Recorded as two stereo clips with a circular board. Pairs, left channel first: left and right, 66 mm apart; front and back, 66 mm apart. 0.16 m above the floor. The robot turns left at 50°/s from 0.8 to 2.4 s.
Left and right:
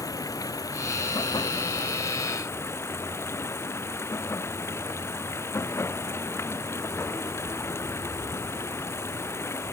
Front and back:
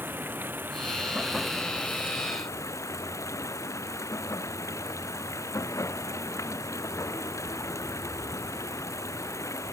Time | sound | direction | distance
0.0 | running water | 120° left | ?